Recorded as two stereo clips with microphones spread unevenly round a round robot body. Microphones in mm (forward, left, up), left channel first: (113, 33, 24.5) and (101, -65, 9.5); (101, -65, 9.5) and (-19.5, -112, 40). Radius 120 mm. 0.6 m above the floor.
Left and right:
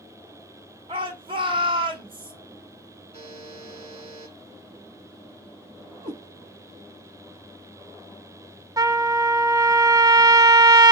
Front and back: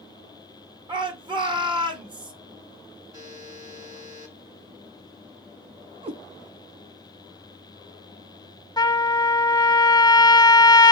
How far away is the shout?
About 1.9 m.